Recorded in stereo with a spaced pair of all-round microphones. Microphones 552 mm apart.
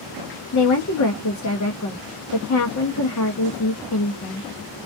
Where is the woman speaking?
35° left (ahead or behind), 0.5 m.